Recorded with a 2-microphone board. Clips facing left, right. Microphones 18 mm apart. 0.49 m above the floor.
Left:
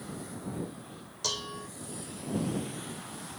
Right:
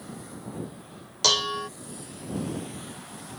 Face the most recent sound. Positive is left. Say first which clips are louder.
# right 11 dB
turn(degrees=-50)  # may be behind; listen again after turning